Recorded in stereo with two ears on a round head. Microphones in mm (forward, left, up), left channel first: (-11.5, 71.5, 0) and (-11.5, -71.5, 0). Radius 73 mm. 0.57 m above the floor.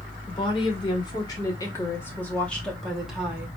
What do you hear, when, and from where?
0.3 s a woman speaking: 35° left (ahead or behind), 1.6 m; by 3.5 s 10° right (ahead or behind), 1.2 m